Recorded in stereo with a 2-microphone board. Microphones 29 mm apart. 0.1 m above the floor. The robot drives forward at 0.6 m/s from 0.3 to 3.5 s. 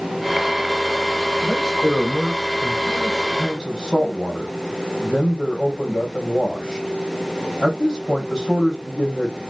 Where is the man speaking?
10° left (ahead or behind), 3 m; by 9.3 s 5° left (ahead or behind), 4 m.